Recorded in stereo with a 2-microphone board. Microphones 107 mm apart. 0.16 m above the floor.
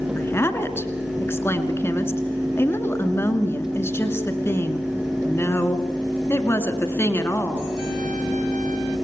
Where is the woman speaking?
20° left (ahead or behind), 2 m.